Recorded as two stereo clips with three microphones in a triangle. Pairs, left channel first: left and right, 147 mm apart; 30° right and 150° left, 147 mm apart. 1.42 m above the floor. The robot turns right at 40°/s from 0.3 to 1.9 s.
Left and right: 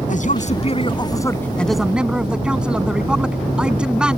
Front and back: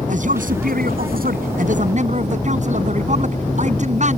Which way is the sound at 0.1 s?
120° left.